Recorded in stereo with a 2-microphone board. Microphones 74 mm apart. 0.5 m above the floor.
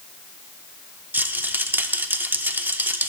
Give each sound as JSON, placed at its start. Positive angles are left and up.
{"t": 1.1, "sound": "a rattle", "side_deg": -25, "distance_m": 0.6}